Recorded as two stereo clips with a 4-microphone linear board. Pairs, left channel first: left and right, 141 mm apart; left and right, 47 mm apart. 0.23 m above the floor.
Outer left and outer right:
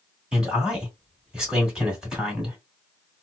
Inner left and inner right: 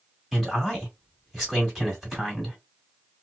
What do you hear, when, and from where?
0.3 s a man speaking: 5° right (ahead or behind), 1.8 m